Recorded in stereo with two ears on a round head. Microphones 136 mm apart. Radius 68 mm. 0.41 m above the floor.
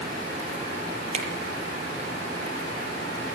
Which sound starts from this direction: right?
A finger snap, at 1.1 s.